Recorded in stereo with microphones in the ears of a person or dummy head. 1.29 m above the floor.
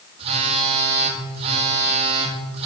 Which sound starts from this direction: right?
A phone buzzing, at 0.2 s.